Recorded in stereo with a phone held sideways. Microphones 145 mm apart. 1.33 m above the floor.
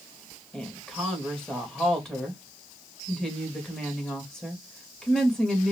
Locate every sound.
0.5 s a woman speaking: 5° left (ahead or behind), 2.5 m